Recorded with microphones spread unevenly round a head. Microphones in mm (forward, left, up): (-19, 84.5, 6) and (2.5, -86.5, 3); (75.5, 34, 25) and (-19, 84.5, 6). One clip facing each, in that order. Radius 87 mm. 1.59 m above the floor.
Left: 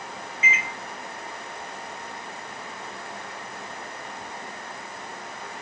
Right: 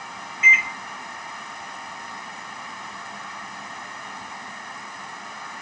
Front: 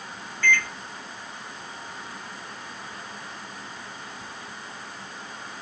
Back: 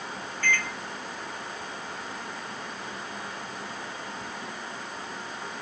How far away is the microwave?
About 1.4 m.